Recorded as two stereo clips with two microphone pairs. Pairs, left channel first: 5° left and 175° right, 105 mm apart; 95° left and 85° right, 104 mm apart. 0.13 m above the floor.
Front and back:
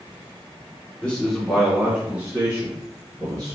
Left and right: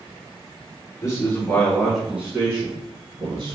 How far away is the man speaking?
About 1.9 m.